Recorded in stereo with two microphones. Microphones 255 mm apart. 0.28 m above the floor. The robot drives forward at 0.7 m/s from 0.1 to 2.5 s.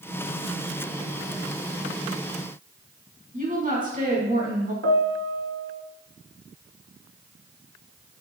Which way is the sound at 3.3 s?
35° right (ahead or behind).